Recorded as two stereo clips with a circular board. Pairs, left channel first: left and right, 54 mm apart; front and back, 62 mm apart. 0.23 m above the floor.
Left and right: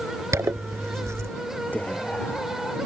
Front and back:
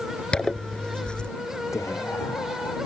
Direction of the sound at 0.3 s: 75° right.